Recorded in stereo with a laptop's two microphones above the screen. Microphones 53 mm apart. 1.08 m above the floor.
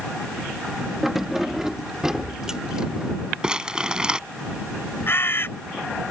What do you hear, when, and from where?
1.0 s keys jangling: 5° right (ahead or behind); by 3.1 s 15° right (ahead or behind)
3.4 s crumpling: 15° right (ahead or behind)
5.1 s a bird: 45° left (ahead or behind)